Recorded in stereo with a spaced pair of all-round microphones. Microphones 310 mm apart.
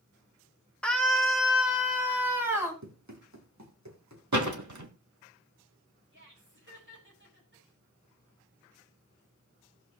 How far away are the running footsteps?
About 3 m.